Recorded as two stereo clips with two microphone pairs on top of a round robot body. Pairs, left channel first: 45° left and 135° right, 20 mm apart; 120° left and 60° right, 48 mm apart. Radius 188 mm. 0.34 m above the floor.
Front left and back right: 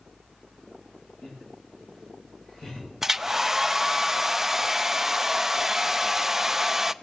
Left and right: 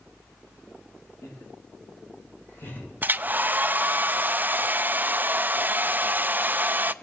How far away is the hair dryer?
About 0.6 m.